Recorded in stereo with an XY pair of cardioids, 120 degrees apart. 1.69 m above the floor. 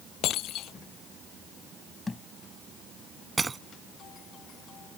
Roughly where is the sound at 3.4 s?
Ahead.